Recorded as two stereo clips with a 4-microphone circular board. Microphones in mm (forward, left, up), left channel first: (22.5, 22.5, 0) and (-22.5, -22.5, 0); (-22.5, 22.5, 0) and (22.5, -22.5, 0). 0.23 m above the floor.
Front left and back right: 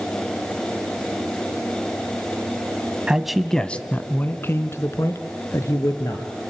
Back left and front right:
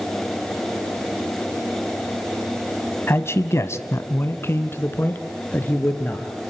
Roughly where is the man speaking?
Behind left.